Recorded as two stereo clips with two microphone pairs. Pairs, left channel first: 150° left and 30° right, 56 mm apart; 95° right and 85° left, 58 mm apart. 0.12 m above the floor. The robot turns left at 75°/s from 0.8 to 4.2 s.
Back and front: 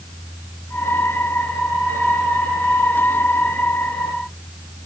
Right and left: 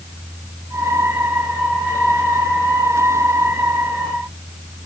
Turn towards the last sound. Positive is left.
No sound to turn to.